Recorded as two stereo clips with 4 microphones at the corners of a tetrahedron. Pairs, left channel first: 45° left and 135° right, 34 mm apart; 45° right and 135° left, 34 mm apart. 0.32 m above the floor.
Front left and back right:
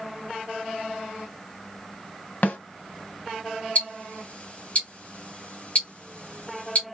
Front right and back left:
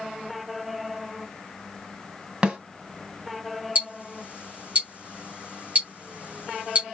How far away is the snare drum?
About 1.4 m.